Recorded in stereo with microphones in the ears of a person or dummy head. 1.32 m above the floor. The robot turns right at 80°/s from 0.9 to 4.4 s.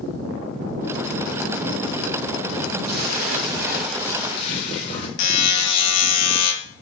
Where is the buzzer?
80° left, 1.2 m.